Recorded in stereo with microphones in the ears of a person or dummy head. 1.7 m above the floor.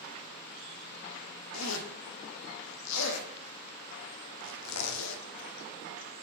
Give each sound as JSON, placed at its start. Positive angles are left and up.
{"t": 1.5, "sound": "a zipper", "side_deg": 80, "distance_m": 0.7}